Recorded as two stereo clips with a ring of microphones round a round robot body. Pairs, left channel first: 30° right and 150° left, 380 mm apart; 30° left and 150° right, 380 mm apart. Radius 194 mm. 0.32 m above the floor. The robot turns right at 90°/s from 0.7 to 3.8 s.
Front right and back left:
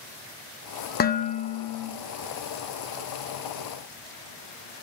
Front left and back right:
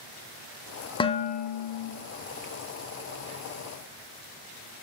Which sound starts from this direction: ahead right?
Dishes clattering, at 1.0 s.